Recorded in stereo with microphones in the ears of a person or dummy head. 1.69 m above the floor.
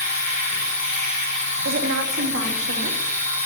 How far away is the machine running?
About 8.5 m.